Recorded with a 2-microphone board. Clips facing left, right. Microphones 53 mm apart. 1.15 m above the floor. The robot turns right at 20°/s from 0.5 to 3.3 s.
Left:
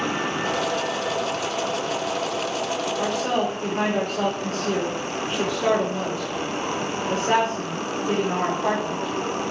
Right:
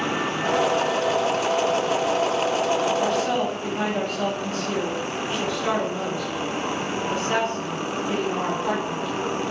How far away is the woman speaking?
About 5.5 m.